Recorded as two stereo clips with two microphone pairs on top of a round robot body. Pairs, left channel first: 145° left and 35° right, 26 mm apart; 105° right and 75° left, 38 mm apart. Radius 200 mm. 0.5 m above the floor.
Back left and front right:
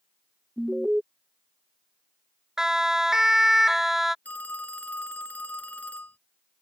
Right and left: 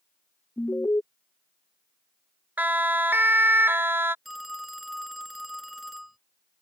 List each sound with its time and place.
0.6 s an alarm: 95° right
2.6 s a siren: 30° left; by 4.2 s 45° left
4.2 s a phone ringing: 160° left